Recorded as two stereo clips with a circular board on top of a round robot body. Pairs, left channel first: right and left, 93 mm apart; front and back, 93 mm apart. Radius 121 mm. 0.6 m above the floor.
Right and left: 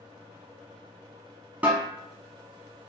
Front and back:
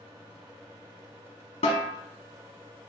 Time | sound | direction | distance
1.6 | a snare drum | 15° left | 0.7 m